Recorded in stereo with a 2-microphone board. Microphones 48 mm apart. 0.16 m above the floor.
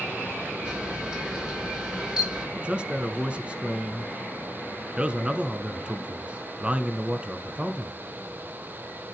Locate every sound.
0.7 s a camera shutter: 15° right (ahead or behind), 2.5 m
2.6 s a man speaking: 20° right (ahead or behind), 1.3 m